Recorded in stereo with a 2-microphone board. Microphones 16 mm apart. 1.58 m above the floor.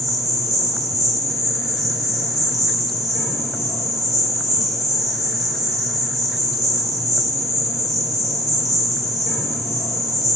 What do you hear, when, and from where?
0.0 s an insect: 10° right (ahead or behind), 3 m